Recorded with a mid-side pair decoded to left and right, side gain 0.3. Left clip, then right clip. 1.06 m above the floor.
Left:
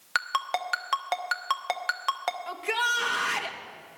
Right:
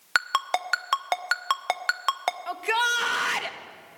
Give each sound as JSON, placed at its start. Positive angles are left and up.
{"t": 0.1, "sound": "a ringtone", "azimuth_deg": -55, "distance_m": 0.9}
{"t": 2.5, "sound": "a shout", "azimuth_deg": -50, "distance_m": 1.6}